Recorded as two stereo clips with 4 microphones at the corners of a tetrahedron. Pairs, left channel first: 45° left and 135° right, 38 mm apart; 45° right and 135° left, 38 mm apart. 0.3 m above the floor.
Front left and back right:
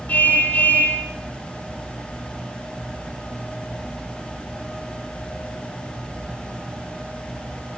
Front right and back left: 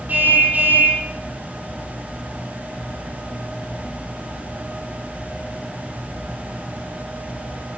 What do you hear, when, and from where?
0.1 s a car horn: 95° left, 5.5 m